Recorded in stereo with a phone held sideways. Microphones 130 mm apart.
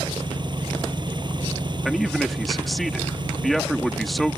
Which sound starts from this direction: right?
An engine running, at 0.0 s.